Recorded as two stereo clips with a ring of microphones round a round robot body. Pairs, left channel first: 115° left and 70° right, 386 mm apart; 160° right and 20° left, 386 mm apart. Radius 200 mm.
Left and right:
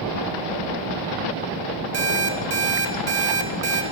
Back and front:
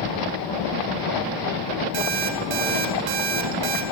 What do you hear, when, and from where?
1.9 s an alarm clock: 10° right, 2.5 m